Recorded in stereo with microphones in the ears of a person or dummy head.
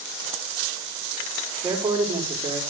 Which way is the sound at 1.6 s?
10° right (ahead or behind).